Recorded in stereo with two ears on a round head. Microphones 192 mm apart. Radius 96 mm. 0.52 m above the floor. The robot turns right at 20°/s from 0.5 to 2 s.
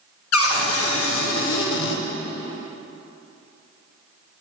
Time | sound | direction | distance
0.3 | a cupboard door | 90° left | 0.6 m